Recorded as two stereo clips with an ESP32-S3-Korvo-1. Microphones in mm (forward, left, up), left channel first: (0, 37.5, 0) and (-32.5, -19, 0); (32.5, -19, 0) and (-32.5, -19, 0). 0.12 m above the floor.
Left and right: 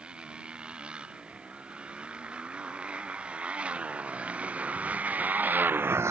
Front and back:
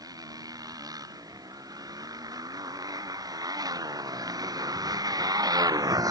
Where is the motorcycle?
165° left; by 6.1 s 160° right.